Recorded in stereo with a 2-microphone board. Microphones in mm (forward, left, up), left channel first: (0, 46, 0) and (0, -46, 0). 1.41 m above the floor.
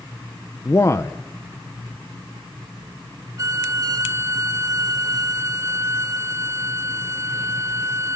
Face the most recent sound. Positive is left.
turn(degrees=-35)  # may be behind; listen again after turning